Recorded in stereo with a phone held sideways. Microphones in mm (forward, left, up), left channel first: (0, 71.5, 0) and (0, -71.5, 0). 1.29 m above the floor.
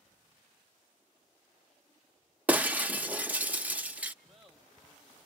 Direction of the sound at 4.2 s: 5° right (ahead or behind).